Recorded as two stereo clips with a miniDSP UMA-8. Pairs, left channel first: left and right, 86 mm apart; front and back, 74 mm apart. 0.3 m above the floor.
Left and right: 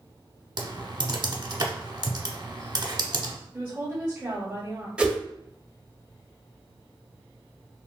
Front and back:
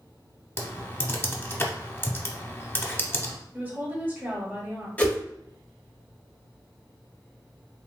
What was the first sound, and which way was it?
Typing on a keyboard, 60° right.